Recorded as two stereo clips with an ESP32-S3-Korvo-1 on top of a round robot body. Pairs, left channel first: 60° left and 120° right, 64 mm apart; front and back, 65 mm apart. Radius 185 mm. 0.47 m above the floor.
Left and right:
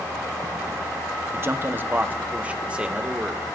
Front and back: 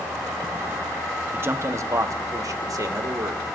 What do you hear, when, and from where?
1.3 s a man speaking: 145° right, 1.2 m; by 3.5 s 165° left, 2.5 m